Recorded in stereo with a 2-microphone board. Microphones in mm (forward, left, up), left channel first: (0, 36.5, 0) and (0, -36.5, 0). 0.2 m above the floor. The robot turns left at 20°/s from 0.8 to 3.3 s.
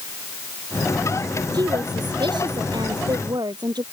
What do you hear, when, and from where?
1.5 s a woman speaking: 70° right; by 3.8 s 105° right